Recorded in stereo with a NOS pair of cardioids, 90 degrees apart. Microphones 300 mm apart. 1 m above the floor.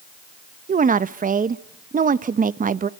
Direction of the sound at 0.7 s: 30° right.